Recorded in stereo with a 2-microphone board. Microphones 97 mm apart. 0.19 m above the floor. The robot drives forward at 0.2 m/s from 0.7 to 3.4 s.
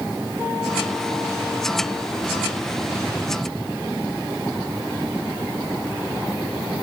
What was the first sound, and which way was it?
Only background noise.